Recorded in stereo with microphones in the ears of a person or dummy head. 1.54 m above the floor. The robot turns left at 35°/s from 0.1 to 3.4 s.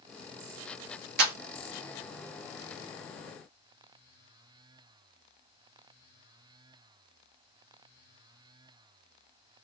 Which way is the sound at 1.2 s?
55° right (ahead or behind).